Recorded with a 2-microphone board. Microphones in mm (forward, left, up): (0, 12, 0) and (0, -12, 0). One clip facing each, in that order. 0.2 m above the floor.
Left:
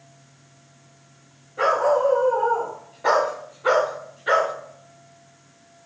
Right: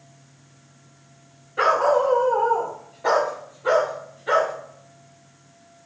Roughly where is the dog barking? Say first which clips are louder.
Right 1 dB; right.